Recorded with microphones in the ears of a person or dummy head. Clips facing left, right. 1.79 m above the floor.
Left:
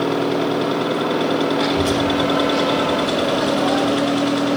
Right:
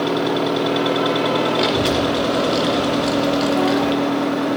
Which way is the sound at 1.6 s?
40° right (ahead or behind).